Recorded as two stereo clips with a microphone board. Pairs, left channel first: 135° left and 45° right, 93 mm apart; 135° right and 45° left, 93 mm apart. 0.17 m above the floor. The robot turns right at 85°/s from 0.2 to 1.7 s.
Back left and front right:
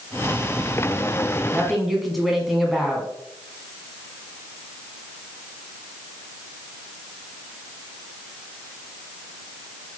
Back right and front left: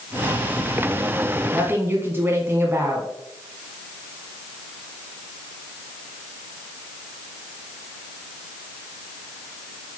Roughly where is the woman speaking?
Ahead left.